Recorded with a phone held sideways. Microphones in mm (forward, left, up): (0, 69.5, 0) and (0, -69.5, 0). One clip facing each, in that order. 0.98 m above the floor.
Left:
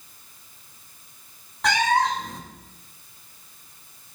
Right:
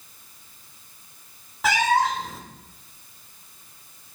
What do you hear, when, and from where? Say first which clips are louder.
1.6 s a cat meowing: even; 5° right (ahead or behind), 1.9 m